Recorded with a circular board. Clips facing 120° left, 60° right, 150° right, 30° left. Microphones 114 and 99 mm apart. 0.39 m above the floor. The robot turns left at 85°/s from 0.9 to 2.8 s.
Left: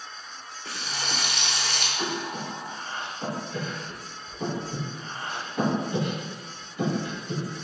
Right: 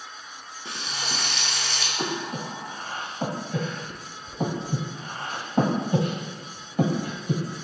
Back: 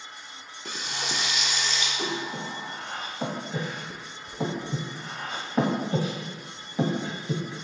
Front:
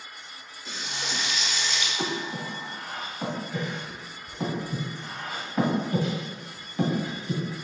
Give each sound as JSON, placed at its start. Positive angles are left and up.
{"t": 0.7, "sound": "frying", "azimuth_deg": -125, "distance_m": 0.8}
{"t": 2.0, "sound": "breathing", "azimuth_deg": -25, "distance_m": 1.2}